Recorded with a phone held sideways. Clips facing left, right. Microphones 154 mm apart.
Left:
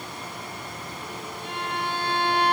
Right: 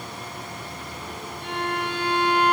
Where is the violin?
70° right (ahead or behind), 0.9 m.